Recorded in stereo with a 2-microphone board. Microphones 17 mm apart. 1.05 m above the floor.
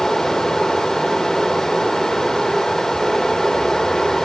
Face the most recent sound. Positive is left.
turn(degrees=30)  # may be behind; listen again after turning